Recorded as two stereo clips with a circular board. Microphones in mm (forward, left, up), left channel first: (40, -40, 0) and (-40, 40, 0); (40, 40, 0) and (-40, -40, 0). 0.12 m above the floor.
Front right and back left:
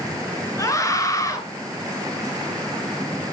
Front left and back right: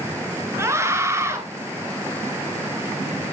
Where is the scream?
85° right, 2 m.